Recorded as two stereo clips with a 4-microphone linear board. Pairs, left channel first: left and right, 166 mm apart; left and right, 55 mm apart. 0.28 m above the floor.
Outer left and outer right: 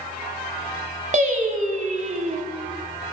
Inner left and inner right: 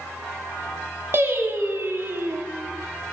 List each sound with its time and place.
1.1 s singing: 50° right (ahead or behind), 1.1 m